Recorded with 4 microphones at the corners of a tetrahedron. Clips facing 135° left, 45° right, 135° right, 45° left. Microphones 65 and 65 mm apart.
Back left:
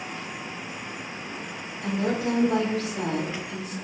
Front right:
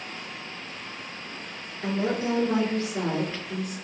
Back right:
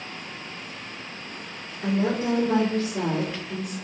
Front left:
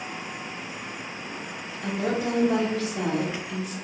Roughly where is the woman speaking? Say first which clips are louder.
Even, back right 3 dB; right.